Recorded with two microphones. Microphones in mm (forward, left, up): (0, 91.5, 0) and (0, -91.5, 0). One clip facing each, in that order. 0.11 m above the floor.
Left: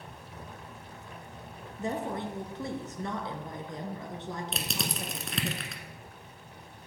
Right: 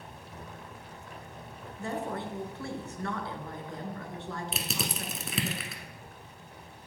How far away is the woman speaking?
About 1.1 m.